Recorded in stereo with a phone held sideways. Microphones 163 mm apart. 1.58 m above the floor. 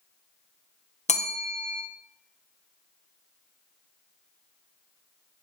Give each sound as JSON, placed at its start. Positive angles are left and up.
{"t": 1.1, "sound": "a bell", "side_deg": 45, "distance_m": 0.8}